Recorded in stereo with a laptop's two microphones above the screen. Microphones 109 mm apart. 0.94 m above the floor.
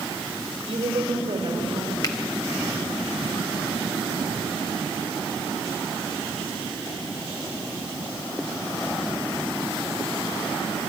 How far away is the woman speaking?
About 5 m.